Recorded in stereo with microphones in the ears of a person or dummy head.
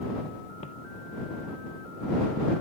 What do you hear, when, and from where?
0.6 s footsteps: 40° left (ahead or behind)